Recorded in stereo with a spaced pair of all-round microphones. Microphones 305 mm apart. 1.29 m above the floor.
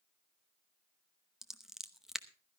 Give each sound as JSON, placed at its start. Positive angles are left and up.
{"t": 1.4, "sound": "scissors", "side_deg": 0, "distance_m": 0.8}